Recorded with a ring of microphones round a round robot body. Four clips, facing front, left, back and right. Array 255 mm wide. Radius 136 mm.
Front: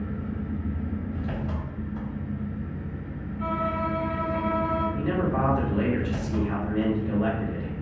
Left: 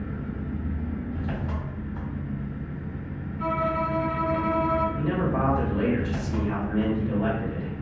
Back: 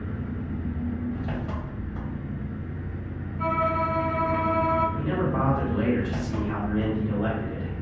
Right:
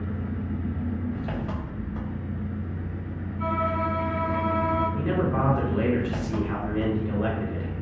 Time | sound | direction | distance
0.0 | an engine running | 115° right | 1.4 m
3.4 | a violin | 165° right | 1.2 m
5.0 | a man speaking | 70° right | 1.7 m